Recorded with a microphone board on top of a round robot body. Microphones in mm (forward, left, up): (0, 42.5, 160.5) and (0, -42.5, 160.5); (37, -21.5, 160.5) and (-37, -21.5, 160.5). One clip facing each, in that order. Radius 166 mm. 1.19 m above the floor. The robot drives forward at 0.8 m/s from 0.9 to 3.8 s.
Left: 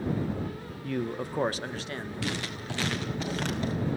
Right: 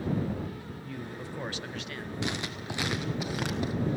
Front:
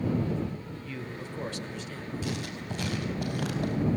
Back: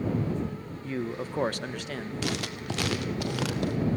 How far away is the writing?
About 1.6 m.